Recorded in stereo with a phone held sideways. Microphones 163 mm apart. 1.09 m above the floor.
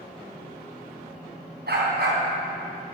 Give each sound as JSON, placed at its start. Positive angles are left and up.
{"t": 1.7, "sound": "a dog barking", "side_deg": -85, "distance_m": 4.0}